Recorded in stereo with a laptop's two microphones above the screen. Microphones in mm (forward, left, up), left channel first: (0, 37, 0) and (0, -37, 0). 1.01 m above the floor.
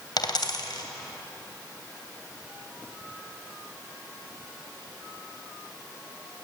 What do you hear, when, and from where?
0.2 s a dropped coin: 80° left, 2.5 m